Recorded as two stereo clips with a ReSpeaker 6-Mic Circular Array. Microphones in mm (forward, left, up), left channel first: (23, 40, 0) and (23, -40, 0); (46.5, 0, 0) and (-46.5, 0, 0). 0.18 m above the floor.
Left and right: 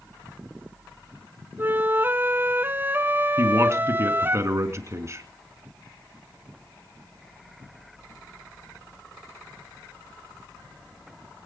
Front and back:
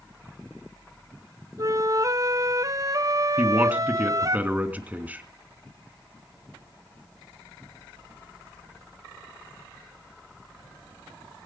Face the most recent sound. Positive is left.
turn(degrees=-115)